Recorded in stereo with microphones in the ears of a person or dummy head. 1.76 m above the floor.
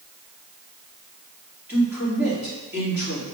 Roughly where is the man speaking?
Centre.